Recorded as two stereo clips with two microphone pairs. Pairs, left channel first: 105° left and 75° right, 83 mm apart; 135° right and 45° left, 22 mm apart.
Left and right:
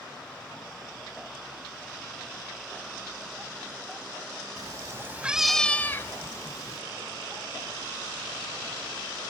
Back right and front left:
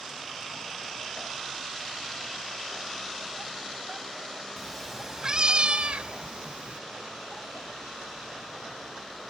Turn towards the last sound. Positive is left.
turn(degrees=65)